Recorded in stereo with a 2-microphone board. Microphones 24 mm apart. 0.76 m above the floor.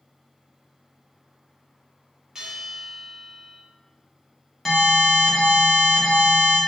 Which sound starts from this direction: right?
A bell, at 2.4 s.